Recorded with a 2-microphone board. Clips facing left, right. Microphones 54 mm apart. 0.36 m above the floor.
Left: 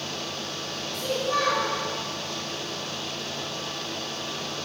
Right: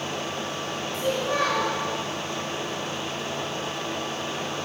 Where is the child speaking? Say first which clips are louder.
Right 1 dB; 30° right (ahead or behind), 1.9 m.